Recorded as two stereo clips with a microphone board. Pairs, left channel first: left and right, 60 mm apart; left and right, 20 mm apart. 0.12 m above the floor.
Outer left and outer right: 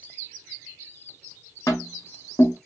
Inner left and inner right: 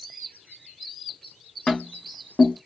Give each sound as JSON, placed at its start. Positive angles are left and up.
{"t": 1.7, "sound": "tapping", "side_deg": 75, "distance_m": 1.5}